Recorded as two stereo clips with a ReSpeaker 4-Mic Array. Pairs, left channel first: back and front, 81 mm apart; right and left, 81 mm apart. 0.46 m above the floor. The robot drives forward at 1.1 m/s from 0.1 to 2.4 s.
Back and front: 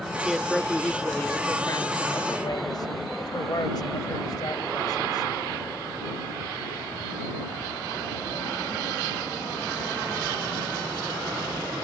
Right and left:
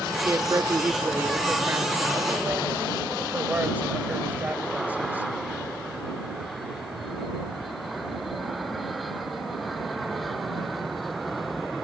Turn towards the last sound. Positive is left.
turn(degrees=160)